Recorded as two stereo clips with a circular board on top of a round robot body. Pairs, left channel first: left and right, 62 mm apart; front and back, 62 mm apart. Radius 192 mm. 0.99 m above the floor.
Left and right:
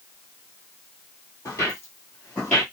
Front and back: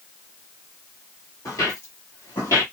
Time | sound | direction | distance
1.4 | footsteps | 45° left | 1.2 m